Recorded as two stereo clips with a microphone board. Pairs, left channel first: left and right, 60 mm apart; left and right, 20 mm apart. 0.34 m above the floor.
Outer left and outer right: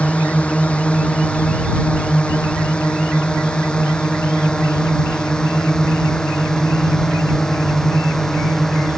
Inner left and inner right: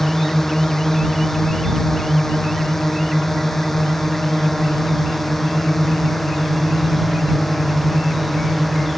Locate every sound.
0.0 s a drone: 20° left (ahead or behind); by 9.0 s 10° left (ahead or behind)